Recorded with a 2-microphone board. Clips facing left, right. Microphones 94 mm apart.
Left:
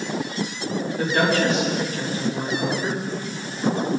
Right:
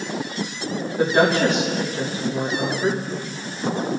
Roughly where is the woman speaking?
Right.